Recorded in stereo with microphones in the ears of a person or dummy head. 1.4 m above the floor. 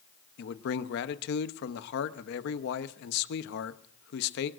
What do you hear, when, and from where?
0.4 s a man speaking: 65° left (ahead or behind), 0.9 m